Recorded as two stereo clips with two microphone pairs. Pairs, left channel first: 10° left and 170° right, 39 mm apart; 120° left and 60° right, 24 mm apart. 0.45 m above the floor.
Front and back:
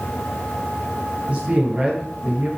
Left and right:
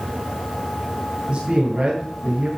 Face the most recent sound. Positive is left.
turn(degrees=-120)